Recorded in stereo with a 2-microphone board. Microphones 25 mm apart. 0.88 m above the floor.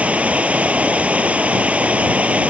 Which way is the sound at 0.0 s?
60° right (ahead or behind).